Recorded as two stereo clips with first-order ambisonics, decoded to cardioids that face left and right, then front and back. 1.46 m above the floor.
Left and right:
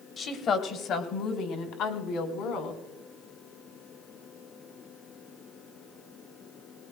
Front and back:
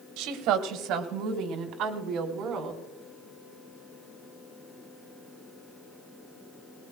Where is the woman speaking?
155° left, 1.3 m; by 2.8 s 125° left, 3 m.